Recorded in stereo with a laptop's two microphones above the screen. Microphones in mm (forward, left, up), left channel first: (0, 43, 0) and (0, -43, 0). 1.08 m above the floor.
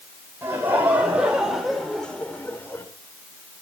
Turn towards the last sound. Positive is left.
turn(degrees=30)  # may be behind; listen again after turning